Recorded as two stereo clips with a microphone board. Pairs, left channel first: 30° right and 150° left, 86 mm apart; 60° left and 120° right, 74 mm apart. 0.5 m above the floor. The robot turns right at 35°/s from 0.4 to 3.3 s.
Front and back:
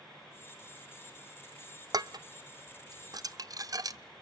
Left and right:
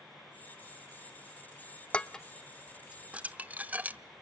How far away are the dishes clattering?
About 0.7 m.